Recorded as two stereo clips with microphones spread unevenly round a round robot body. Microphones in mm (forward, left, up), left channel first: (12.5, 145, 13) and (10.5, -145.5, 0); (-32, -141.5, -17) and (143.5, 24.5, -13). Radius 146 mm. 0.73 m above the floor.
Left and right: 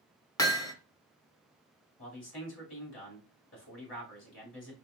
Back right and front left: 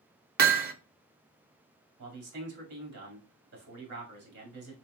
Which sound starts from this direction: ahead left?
A man speaking, at 2.0 s.